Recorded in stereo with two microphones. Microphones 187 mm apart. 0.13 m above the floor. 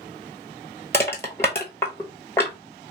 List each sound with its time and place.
0.9 s crushing: 15° left (ahead or behind), 0.9 m